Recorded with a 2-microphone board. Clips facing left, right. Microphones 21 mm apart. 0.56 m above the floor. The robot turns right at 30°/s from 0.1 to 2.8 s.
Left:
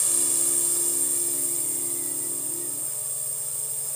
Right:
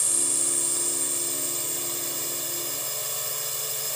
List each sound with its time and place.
0.0 s a drone: 175° right; by 4.0 s 95° right